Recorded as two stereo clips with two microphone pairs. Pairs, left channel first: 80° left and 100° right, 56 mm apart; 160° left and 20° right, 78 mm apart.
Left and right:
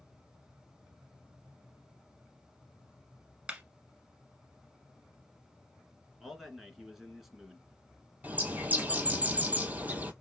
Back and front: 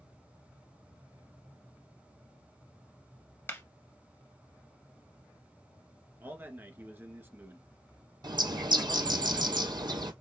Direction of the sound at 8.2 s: 40° right.